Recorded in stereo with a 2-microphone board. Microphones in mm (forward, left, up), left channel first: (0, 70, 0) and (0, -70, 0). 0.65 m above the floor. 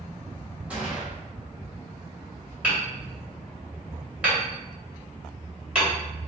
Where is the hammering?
5° right (ahead or behind), 1.9 m.